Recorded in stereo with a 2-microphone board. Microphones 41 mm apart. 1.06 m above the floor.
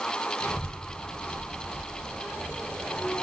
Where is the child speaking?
85° left, 4 m.